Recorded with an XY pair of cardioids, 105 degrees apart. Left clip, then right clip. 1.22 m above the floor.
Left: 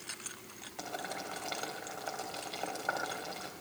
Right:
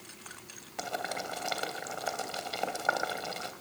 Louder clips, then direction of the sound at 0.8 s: Right 5 dB; 45° right.